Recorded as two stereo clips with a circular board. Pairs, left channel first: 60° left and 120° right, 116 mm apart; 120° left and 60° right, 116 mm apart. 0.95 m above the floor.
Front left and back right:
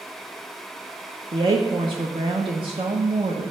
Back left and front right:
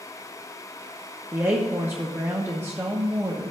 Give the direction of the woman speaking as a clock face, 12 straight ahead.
4 o'clock.